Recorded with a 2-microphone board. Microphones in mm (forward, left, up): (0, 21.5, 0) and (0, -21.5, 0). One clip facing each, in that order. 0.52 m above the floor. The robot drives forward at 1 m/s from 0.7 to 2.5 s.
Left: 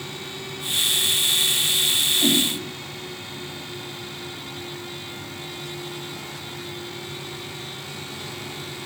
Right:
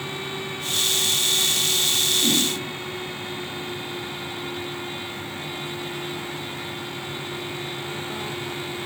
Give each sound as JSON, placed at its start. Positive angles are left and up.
{"t": 2.2, "sound": "a whoosh", "side_deg": 50, "distance_m": 3.0}